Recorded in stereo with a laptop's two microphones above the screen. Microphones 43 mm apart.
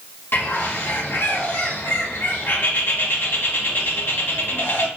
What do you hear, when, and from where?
0.3 s a bird: 55° left (ahead or behind), 0.9 m